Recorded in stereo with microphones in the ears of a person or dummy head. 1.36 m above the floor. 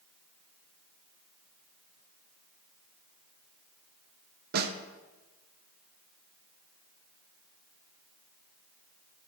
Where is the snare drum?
55° right (ahead or behind), 0.7 m.